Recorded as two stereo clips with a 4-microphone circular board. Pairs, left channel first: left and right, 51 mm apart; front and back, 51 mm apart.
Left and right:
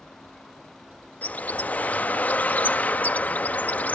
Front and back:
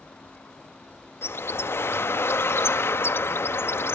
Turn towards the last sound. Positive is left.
turn(degrees=35)